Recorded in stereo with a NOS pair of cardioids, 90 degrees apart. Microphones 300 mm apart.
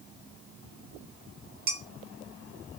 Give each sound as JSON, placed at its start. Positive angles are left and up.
{"t": 1.7, "sound": "dishes clattering", "azimuth_deg": -35, "distance_m": 1.3}